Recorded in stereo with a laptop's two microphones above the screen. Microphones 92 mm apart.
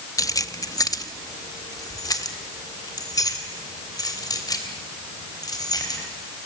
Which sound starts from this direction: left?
Keys jangling, at 0.2 s.